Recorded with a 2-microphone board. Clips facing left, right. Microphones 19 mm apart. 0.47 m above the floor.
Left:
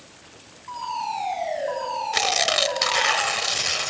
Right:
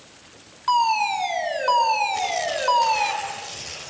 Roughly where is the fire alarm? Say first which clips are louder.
Right 9 dB; right.